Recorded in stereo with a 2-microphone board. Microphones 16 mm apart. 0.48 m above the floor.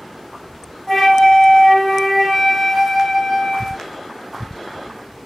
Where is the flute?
5° left (ahead or behind), 1.3 m.